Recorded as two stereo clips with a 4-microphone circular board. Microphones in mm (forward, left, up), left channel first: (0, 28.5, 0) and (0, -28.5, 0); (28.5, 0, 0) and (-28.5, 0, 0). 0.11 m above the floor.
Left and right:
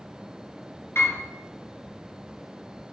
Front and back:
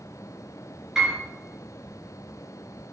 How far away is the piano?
About 1.3 m.